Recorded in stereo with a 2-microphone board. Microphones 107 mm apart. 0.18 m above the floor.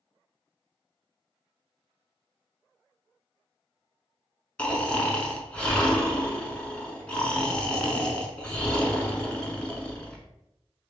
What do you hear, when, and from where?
4.6 s snoring: 10° left (ahead or behind), 0.6 m